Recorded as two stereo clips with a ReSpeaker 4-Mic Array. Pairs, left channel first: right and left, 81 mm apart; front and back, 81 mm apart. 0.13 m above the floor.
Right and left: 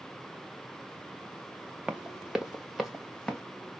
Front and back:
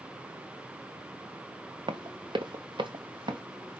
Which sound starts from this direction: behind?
Running footsteps, at 1.9 s.